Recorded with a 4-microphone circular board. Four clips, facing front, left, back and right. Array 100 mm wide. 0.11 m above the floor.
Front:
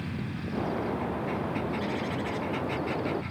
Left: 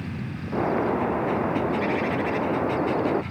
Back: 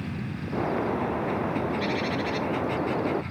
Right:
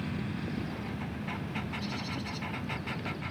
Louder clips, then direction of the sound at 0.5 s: Left 14 dB, back 4 dB; 105° left.